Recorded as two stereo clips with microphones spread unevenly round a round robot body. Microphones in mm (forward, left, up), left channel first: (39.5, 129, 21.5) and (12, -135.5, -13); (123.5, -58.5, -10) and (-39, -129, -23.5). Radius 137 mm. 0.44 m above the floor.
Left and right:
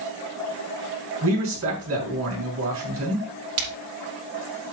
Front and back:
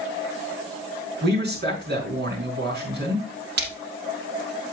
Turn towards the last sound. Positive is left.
turn(degrees=-135)